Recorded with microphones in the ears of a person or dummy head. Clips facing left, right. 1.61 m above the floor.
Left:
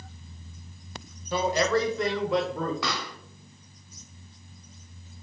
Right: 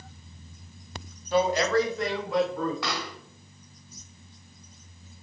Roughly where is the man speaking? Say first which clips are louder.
Right 2 dB; left.